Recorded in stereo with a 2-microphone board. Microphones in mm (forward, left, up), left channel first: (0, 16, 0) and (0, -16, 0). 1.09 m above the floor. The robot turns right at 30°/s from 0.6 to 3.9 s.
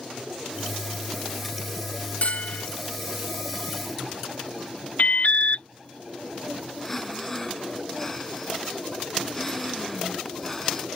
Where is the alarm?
60° left (ahead or behind).